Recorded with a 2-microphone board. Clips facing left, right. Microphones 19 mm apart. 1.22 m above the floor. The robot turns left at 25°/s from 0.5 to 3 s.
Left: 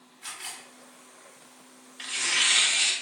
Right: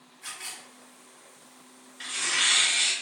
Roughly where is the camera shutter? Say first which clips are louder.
Even; left.